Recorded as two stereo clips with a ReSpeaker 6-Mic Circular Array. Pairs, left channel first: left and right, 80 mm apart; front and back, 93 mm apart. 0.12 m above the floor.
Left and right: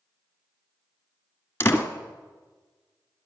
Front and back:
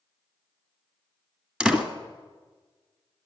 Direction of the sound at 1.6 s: 115° left.